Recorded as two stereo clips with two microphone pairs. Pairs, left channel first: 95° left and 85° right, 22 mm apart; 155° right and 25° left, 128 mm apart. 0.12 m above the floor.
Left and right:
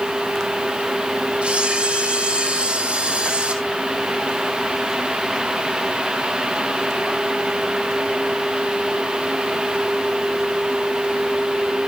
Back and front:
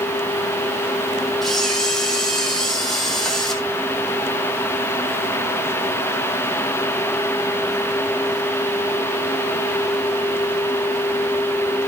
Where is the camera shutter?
65° right, 3 m.